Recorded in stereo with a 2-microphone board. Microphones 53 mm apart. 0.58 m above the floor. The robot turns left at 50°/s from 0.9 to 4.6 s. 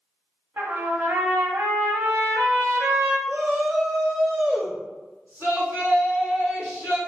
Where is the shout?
60° right, 1.3 m; by 7.0 s 125° right, 1.3 m.